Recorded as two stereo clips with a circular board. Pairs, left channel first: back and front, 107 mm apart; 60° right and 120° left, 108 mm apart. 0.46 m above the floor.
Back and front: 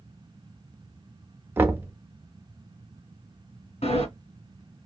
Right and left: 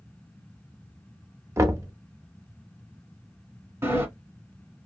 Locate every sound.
1.6 s knocking: 65° left, 0.6 m
3.8 s a sliding door: 175° right, 1.5 m